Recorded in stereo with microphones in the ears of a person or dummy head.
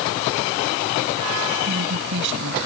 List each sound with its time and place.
1.7 s a woman speaking: 65° right (ahead or behind)